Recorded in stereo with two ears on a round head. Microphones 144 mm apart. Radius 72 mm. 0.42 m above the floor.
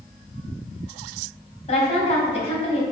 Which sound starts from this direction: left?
A woman speaking, at 1.7 s.